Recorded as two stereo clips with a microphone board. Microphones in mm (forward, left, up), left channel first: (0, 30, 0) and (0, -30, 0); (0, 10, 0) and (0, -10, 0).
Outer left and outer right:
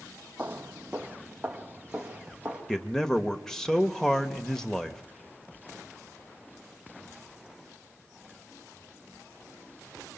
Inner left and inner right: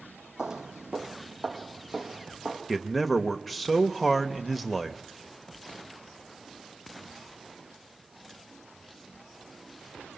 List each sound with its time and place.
0.4 s footsteps: 30° right (ahead or behind), 0.8 m; by 2.6 s 15° right (ahead or behind), 3 m
2.7 s a man speaking: 5° left (ahead or behind), 0.8 m